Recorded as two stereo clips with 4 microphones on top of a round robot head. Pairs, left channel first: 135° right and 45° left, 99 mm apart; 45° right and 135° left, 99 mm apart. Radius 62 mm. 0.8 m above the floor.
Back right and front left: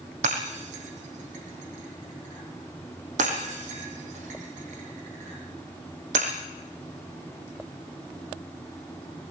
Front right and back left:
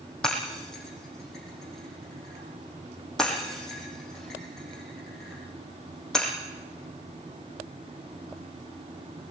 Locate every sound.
0.2 s breaking glass: 45° left, 7 m